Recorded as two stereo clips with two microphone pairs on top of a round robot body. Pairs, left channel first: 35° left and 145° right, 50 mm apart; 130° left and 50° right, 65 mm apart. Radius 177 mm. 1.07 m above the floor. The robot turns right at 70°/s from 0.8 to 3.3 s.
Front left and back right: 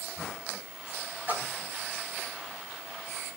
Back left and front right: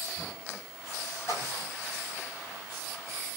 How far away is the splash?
About 3 m.